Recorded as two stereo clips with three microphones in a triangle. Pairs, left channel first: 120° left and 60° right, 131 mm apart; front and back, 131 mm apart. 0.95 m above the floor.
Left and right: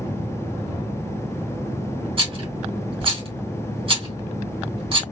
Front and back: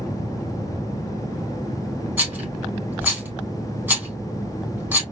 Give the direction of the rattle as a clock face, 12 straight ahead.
3 o'clock.